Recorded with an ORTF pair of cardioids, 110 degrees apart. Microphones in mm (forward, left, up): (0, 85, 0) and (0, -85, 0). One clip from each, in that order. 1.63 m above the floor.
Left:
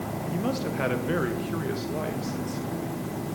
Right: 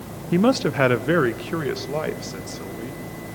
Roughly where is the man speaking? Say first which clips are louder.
Right 12 dB; ahead right.